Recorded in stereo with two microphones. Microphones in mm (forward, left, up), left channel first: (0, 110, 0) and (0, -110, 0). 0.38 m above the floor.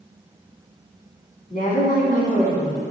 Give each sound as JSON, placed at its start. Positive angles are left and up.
{"t": 1.5, "sound": "a woman speaking", "side_deg": 40, "distance_m": 3.0}